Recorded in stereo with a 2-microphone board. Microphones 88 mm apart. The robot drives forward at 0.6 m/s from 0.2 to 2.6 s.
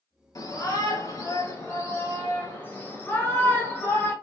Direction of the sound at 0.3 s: 45° left (ahead or behind).